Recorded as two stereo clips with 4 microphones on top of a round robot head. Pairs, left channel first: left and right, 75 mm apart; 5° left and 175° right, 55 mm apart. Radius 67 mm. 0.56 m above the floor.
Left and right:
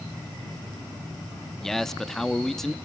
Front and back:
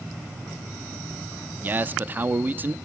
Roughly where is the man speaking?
Behind.